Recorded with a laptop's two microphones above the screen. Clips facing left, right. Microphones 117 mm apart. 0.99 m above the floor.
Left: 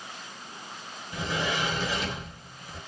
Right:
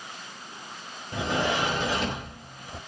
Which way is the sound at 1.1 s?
55° right (ahead or behind).